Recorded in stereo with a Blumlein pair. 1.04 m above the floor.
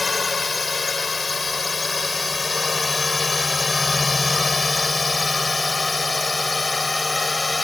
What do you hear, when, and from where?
0.0 s a drone: 10° left